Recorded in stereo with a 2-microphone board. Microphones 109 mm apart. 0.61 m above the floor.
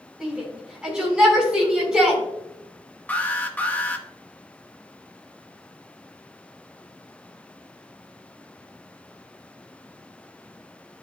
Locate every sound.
0.2 s a shout: 5° right (ahead or behind), 4.5 m
3.1 s an alarm: 15° left (ahead or behind), 1.0 m